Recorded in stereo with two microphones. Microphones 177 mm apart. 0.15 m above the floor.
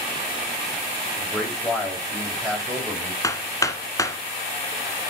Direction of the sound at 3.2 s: 20° left (ahead or behind).